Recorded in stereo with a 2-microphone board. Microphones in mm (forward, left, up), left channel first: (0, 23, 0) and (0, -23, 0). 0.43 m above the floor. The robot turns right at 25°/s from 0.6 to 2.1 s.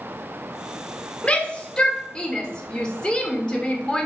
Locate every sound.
1.2 s a shout: 20° left (ahead or behind), 1.2 m; by 4.1 s 15° left (ahead or behind), 1.2 m